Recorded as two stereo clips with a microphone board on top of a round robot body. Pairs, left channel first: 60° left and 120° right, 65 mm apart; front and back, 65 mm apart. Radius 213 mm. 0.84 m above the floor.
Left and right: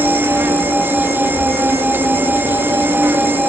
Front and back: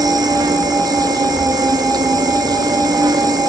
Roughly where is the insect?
Behind.